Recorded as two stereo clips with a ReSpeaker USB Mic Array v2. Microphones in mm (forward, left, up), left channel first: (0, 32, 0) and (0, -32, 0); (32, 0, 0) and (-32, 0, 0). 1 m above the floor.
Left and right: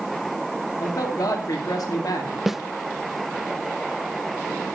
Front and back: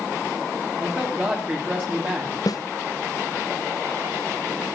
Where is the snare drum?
5° right, 0.5 m.